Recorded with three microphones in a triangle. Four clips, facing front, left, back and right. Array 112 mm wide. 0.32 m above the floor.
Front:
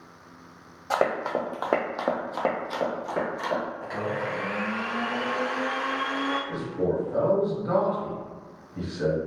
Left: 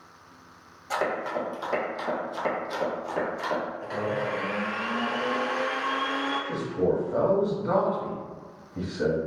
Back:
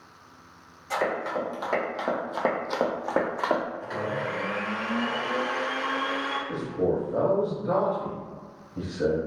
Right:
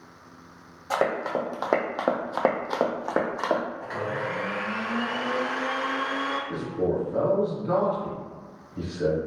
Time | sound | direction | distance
0.9 | running footsteps | 30° right | 1.0 m
3.8 | a blender | 75° right | 1.3 m
6.5 | a man speaking | 80° left | 1.5 m